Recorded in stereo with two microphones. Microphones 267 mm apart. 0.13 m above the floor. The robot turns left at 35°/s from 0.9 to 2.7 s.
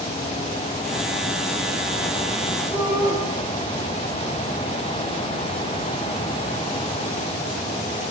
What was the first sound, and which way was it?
A shout, 5° right (ahead or behind).